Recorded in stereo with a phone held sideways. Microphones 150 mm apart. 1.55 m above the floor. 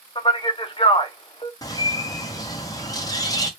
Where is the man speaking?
35° left (ahead or behind), 0.6 m.